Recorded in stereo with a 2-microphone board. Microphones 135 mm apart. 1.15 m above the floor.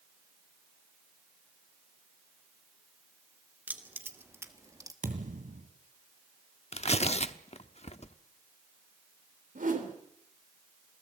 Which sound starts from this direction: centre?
Keys jangling, at 3.7 s.